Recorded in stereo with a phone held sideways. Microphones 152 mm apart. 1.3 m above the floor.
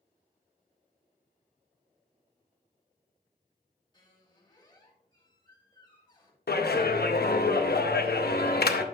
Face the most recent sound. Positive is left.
turn(degrees=75)  # may be behind; listen again after turning